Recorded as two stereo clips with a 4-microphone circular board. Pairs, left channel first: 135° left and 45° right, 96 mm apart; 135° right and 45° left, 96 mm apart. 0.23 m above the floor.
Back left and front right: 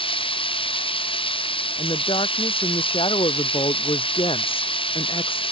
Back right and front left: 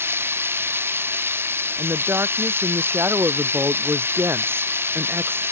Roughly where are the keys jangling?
I don't hear keys jangling.